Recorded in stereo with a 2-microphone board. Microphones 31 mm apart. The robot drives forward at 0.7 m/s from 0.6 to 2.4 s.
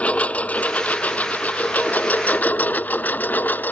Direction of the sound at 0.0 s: 40° left (ahead or behind).